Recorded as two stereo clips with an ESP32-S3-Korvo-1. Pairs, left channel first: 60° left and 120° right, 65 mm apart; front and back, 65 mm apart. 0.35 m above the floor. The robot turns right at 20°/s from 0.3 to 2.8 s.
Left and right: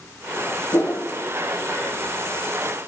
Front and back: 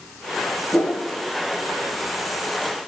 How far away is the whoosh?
About 1.6 m.